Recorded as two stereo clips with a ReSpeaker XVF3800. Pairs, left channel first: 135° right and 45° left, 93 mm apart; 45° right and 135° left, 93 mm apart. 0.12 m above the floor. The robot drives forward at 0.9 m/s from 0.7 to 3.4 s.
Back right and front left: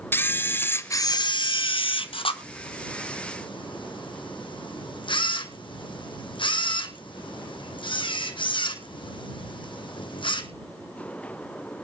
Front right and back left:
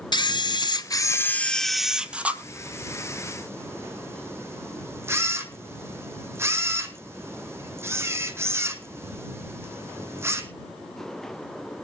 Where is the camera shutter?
70° right, 0.9 m; by 10.5 s 160° right, 2.5 m.